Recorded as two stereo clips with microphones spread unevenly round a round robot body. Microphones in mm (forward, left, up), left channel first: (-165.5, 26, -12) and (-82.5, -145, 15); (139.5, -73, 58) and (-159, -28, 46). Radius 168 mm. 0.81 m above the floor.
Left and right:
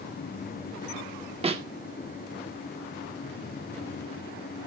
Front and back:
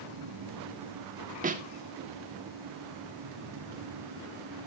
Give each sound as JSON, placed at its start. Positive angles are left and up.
{"t": 1.4, "sound": "a snare drum", "azimuth_deg": -125, "distance_m": 1.9}